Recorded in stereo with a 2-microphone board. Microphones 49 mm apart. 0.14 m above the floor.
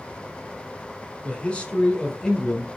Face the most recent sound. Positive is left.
turn(degrees=10)  # may be behind; listen again after turning